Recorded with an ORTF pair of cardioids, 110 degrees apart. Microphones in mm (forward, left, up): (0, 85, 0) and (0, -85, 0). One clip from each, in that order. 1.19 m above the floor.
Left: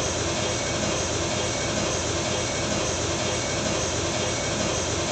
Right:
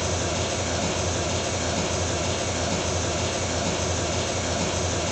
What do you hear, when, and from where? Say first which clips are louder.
0.0 s an engine running: even; 15° left, 1.9 m